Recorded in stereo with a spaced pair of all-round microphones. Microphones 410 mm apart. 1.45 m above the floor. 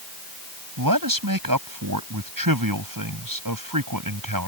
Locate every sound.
0.8 s a man speaking: 55° right (ahead or behind)